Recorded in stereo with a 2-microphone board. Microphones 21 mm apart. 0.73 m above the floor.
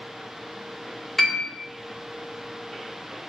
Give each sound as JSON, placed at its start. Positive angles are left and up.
{"t": 1.2, "sound": "a piano", "side_deg": 5, "distance_m": 0.7}